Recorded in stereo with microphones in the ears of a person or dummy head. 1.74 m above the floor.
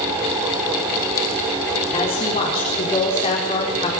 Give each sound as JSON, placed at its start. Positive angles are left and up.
{"t": 1.9, "sound": "a woman speaking", "side_deg": 35, "distance_m": 4.5}